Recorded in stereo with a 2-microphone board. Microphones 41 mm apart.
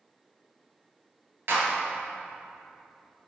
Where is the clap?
60° right (ahead or behind), 2.5 m.